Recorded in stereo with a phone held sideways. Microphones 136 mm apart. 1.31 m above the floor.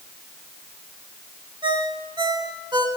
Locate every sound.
1.6 s a ringtone: 35° right (ahead or behind), 2 m